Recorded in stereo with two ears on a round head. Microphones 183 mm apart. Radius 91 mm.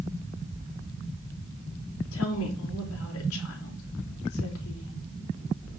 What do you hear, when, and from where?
2.1 s a woman speaking: 80° left, 4 m